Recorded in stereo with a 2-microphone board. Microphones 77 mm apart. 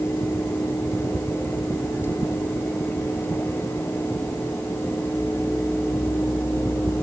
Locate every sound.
Only background noise.